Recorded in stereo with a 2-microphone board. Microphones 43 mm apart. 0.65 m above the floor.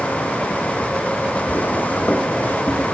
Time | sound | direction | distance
1.5 | footsteps | 45° left (ahead or behind) | 1.0 m